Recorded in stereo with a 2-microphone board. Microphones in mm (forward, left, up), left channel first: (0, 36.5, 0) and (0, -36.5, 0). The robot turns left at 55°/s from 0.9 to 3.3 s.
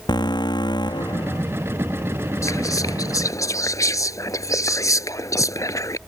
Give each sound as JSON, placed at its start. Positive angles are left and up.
{"t": 0.1, "sound": "an alarm", "azimuth_deg": 75}
{"t": 2.4, "sound": "whispering", "azimuth_deg": 120}